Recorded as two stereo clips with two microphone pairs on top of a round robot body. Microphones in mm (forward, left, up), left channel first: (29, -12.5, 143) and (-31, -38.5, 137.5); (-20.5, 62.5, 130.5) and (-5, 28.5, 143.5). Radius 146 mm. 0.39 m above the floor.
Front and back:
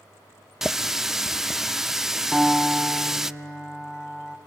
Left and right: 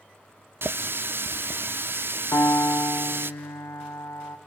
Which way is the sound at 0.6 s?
80° right.